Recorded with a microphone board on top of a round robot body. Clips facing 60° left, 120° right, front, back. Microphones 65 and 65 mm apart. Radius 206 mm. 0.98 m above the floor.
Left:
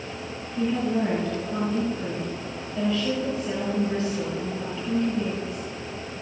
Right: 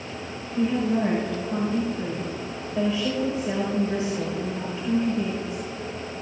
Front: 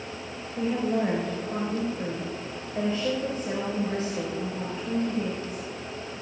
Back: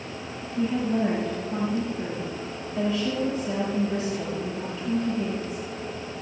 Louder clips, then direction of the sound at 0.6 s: Right 1 dB, back 1 dB; 50° right.